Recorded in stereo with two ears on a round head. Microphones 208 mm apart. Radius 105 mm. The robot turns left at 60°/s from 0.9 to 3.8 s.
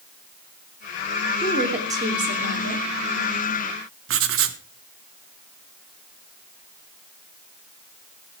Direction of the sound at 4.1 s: 55° right (ahead or behind).